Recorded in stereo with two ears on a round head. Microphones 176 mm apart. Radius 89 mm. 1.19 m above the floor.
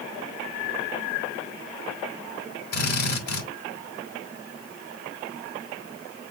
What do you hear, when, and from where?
2.7 s a drill: 55° left (ahead or behind), 6.5 m